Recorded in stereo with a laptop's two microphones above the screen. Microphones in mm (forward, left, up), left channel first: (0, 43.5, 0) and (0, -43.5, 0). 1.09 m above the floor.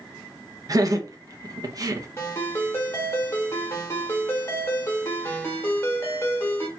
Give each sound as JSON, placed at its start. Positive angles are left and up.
{"t": 0.7, "sound": "laughter", "side_deg": -45, "distance_m": 0.8}
{"t": 2.2, "sound": "a ringtone", "side_deg": 30, "distance_m": 1.4}